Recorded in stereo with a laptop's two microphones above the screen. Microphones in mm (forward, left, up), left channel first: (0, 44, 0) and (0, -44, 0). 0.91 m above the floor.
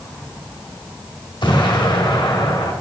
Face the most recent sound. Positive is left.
turn(degrees=60)  # may be behind; listen again after turning